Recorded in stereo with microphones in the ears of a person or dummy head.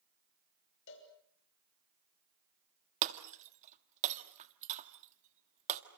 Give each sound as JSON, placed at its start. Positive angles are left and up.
{"t": 0.9, "sound": "a cowbell", "side_deg": 60, "distance_m": 6.0}
{"t": 3.0, "sound": "breaking glass", "side_deg": -40, "distance_m": 1.6}